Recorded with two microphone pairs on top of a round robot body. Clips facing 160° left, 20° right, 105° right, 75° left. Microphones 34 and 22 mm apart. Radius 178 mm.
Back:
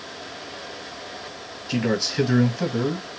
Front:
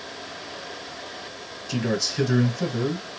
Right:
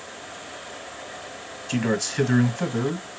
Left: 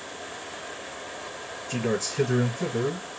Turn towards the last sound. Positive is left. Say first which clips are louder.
# back 2 dB, right 3 dB
turn(degrees=-150)